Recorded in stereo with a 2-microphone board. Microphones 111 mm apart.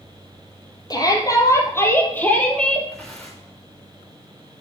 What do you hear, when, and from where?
0.9 s a shout: 35° left (ahead or behind), 3.5 m; by 2.9 s 5° left (ahead or behind), 3 m
2.9 s tearing paper: 10° left (ahead or behind), 6 m